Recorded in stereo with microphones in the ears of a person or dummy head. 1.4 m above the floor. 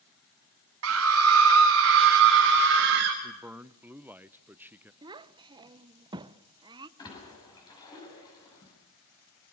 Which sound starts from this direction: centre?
A man speaking, at 3.2 s.